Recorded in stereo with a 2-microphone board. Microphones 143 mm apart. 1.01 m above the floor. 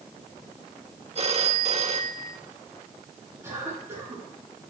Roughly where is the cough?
Centre.